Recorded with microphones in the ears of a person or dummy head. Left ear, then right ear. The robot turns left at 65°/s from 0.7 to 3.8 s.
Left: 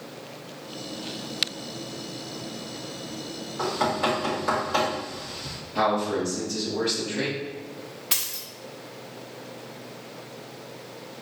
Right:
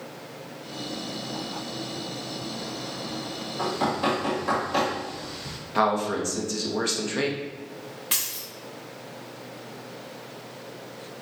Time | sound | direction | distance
3.6 | knocking | centre (ahead or behind) | 1.6 m
5.8 | a man speaking | 50° right (ahead or behind) | 0.9 m
8.1 | a dropped coin | centre (ahead or behind) | 0.9 m